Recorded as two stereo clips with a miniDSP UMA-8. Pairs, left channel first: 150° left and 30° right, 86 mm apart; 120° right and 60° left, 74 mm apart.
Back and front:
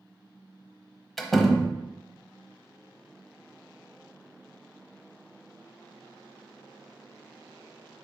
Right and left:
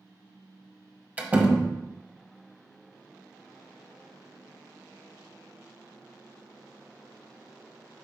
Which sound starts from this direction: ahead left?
A door slam, at 1.2 s.